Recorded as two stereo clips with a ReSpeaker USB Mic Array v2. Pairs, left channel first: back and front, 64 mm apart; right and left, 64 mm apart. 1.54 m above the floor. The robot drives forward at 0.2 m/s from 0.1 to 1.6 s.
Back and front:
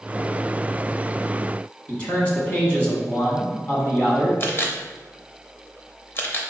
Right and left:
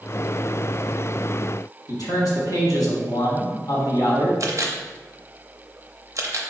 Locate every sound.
1.9 s a man speaking: 115° right, 1.4 m
4.4 s a camera shutter: 130° left, 0.6 m